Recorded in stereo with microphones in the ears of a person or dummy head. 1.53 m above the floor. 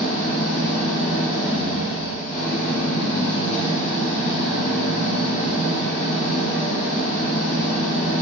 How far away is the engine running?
About 1.7 m.